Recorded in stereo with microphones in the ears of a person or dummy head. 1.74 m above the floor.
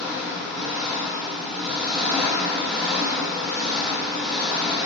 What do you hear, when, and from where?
0.0 s an engine running: centre (ahead or behind), 0.7 m